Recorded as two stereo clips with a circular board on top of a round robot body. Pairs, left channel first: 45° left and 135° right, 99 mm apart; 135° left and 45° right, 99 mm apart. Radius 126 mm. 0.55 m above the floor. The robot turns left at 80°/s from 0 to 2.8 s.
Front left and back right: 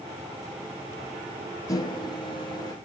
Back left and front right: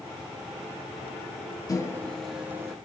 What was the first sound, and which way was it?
A microwave, 90° left.